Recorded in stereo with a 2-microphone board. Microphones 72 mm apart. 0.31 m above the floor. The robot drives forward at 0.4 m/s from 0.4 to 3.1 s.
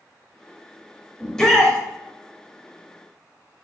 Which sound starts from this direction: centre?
A shout, at 1.2 s.